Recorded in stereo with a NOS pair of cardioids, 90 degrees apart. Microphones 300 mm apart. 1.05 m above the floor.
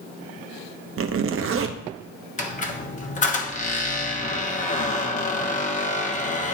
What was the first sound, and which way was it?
A zipper, 45° right.